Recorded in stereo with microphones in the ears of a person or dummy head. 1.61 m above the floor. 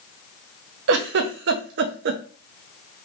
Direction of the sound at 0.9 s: 70° right (ahead or behind).